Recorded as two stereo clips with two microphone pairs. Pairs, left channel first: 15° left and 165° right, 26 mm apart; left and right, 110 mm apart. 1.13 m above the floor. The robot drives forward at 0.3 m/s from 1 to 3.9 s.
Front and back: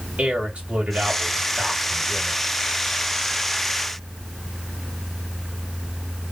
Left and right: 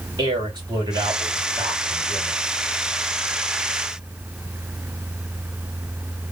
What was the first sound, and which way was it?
A man speaking, 140° right.